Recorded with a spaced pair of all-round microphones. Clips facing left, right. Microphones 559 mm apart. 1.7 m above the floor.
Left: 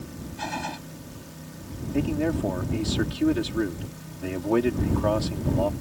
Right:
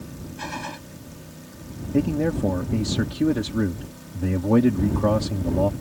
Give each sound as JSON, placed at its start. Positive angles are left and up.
{"t": 0.4, "sound": "a gunshot", "side_deg": 5}
{"t": 1.9, "sound": "a man speaking", "side_deg": -65}